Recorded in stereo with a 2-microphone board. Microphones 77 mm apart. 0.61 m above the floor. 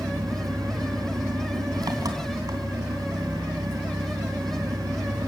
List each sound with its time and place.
0.0 s an engine running: 60° right (ahead or behind), 3 m